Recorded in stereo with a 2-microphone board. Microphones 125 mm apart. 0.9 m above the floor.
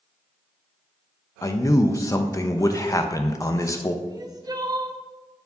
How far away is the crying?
About 0.5 m.